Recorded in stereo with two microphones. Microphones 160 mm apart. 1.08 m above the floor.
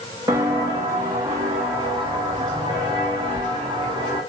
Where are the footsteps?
20° right (ahead or behind), 3.5 m; by 4.2 s 25° right (ahead or behind), 8 m.